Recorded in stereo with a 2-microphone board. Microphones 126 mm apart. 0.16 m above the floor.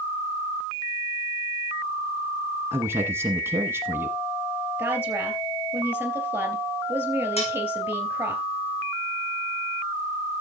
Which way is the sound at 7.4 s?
55° left (ahead or behind).